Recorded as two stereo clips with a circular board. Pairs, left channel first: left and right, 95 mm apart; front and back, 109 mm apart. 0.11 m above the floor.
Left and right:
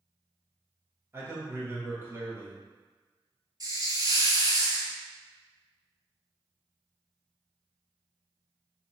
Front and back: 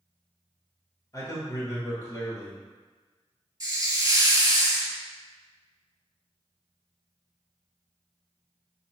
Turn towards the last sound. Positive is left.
turn(degrees=-125)